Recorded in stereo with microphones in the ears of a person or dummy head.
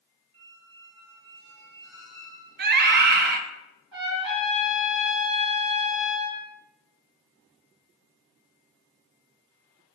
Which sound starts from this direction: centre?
A squeak, at 0.3 s.